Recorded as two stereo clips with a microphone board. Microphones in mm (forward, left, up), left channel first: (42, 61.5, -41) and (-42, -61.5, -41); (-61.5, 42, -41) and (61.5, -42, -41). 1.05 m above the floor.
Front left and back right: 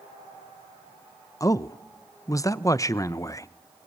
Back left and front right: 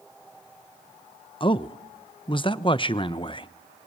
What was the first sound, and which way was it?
A man speaking, 115° left.